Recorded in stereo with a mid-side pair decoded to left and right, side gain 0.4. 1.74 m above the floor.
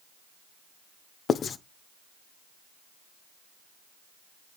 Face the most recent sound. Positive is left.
turn(degrees=55)